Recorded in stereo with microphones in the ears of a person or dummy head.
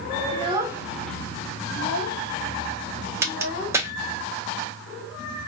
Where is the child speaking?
35° right (ahead or behind), 0.7 m; by 3.8 s 75° left (ahead or behind), 1.5 m.